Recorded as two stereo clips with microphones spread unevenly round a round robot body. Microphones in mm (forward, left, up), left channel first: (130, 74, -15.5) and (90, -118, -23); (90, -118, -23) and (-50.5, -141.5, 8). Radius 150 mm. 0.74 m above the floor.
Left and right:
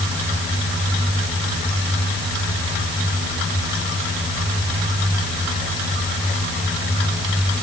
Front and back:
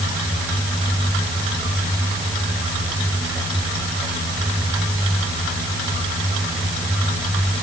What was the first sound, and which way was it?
Only background noise.